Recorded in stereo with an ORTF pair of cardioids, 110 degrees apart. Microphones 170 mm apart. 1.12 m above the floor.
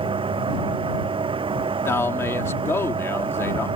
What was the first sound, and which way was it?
A fan, 35° right.